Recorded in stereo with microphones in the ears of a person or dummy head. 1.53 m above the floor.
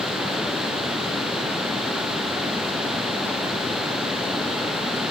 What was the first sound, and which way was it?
Only background noise.